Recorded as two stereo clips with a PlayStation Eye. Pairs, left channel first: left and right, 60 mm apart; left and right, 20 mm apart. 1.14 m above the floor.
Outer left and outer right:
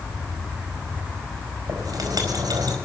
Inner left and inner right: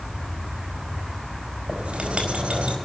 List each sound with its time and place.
1.7 s writing: 80° right, 4.5 m